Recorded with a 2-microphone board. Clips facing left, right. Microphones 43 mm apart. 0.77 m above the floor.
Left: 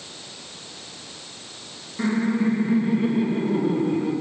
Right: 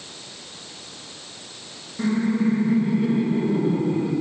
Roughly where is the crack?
No crack in this recording.